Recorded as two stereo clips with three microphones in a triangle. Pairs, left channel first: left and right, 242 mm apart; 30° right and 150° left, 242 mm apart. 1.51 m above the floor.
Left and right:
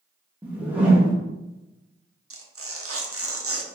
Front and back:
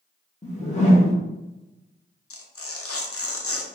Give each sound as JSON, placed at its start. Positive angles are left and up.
{"t": 0.4, "sound": "a whoosh", "azimuth_deg": -15, "distance_m": 0.9}
{"t": 2.3, "sound": "tearing paper", "azimuth_deg": -60, "distance_m": 0.5}